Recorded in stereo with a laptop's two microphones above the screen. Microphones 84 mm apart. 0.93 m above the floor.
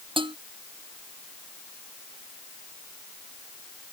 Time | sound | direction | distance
0.2 | dishes clattering | 90° right | ?